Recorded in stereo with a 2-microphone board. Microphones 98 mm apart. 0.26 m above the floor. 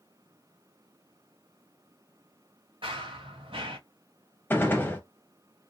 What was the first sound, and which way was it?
Running footsteps, 65° right (ahead or behind).